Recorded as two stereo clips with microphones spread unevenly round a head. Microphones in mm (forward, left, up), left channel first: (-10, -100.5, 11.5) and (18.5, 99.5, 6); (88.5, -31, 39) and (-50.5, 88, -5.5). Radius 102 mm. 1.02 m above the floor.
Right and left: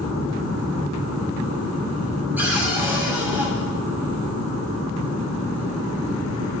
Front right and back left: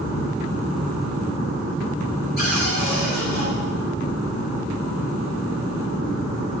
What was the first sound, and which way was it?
A cupboard door, straight ahead.